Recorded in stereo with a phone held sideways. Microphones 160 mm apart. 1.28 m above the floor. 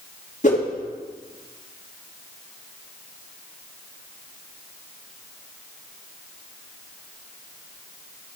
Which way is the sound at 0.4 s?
50° left (ahead or behind).